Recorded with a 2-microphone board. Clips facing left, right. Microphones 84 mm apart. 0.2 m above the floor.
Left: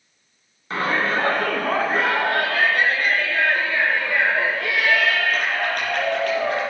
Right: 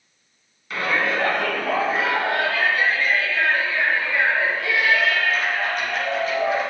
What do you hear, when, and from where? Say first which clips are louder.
0.7 s a shout: left 1 dB; 35° left (ahead or behind), 2 m; by 6.6 s 75° left (ahead or behind), 6.5 m